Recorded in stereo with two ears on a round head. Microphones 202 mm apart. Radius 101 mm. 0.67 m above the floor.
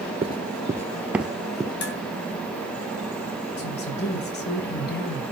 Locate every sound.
0.2 s running footsteps: 25° right (ahead or behind), 0.7 m; by 1.7 s 5° left (ahead or behind), 1.1 m
1.8 s dishes clattering: 55° left (ahead or behind), 3.5 m
3.6 s a woman speaking: 50° left (ahead or behind), 2.5 m